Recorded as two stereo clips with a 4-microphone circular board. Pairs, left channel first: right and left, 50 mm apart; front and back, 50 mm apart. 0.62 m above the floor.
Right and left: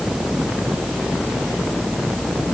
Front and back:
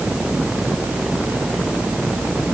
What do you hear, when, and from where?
Only background noise.